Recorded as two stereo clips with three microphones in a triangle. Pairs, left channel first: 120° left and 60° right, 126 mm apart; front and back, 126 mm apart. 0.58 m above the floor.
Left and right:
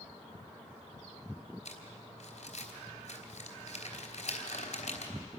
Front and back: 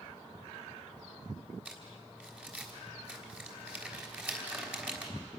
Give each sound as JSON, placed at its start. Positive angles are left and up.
{"t": 1.6, "sound": "crumpling", "azimuth_deg": 100, "distance_m": 3.0}